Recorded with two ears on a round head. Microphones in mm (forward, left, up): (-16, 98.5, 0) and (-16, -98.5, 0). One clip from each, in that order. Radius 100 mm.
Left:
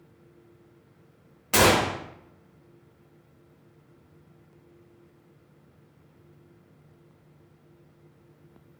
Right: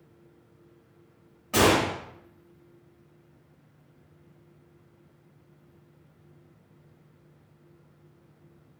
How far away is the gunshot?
About 0.5 m.